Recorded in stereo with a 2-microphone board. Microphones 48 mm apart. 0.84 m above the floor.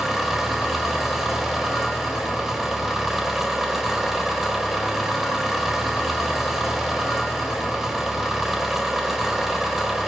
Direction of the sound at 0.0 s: 10° right (ahead or behind).